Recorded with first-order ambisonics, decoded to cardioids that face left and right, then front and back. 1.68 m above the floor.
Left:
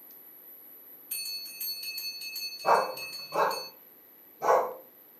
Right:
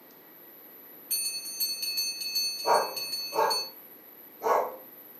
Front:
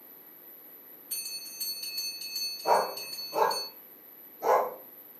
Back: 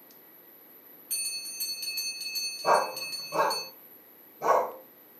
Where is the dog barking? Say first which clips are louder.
Left 2 dB, back 1 dB; 145° left, 1.7 m.